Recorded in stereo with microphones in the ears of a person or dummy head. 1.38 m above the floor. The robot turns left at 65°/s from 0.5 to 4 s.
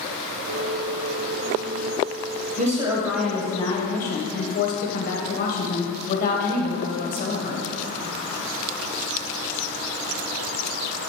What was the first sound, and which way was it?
A woman speaking, 130° right.